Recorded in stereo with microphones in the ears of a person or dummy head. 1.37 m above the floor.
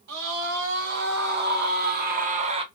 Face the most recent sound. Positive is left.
turn(degrees=-30)  # may be behind; listen again after turning